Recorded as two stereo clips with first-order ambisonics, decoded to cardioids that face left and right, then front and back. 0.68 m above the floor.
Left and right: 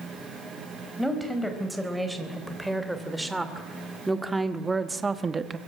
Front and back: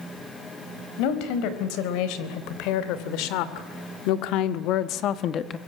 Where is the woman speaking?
Straight ahead, 4 m; by 5.6 s 40° right, 0.9 m.